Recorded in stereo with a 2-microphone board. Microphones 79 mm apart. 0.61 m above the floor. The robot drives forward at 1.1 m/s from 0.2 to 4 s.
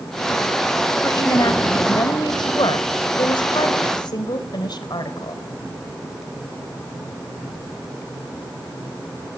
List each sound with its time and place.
1.0 s a woman speaking: 45° left (ahead or behind), 3.5 m; by 5.4 s 65° left (ahead or behind), 2.5 m